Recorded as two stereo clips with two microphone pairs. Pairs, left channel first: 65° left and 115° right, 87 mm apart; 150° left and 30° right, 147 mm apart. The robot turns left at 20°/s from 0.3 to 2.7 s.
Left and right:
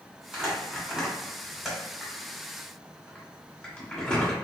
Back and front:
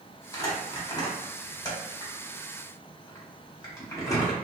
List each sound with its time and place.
0.3 s crumpling: straight behind, 1.2 m; by 4.3 s 130° left, 1.2 m